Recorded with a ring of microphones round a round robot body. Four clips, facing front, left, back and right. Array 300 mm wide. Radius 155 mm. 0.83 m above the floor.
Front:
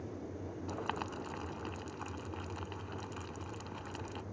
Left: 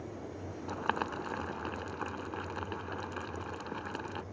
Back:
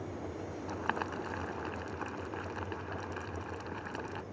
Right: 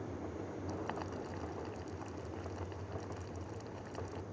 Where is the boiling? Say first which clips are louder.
Left 10 dB, back 4 dB; 110° left.